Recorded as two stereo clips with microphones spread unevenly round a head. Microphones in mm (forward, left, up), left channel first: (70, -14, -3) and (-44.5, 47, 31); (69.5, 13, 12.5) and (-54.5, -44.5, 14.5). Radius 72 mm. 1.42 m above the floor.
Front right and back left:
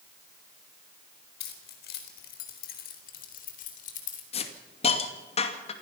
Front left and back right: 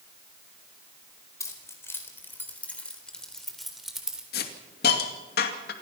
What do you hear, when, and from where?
1.4 s keys jangling: 45° right, 4 m; by 4.2 s 70° right, 3.5 m
4.3 s a hiss: 15° left, 2.5 m